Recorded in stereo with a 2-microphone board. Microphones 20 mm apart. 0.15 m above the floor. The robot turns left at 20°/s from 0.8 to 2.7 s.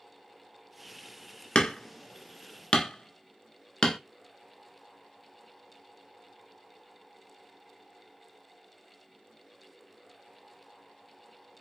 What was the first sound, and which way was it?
Hammering, 60° left (ahead or behind).